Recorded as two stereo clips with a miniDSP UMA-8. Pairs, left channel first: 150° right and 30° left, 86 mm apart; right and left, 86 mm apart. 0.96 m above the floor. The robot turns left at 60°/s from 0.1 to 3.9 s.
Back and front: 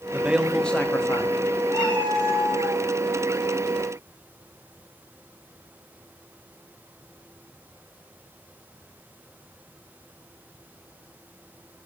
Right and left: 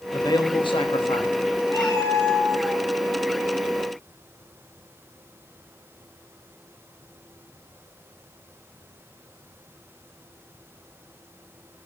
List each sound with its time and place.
0.1 s a man speaking: 40° right, 1.3 m; by 1.4 s 115° right, 1.3 m
1.7 s a cat meowing: 120° right, 4.5 m; by 2.8 s 175° left, 4.5 m